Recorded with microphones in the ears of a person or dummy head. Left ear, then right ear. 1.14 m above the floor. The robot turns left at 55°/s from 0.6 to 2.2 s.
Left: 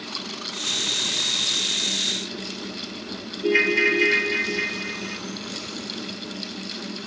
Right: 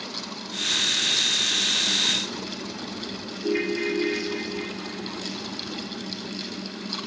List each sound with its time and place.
3.4 s a ringtone: 55° left (ahead or behind), 0.7 m